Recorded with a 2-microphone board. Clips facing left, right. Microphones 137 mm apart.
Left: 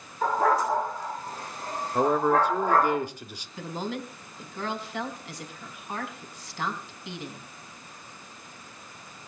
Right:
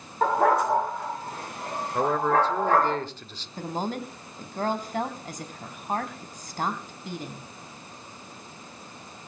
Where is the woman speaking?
40° right (ahead or behind), 3 m.